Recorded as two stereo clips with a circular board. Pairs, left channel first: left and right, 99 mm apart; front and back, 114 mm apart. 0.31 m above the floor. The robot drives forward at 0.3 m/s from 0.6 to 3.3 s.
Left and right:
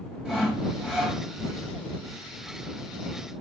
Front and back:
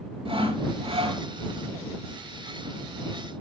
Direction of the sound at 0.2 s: 175° right.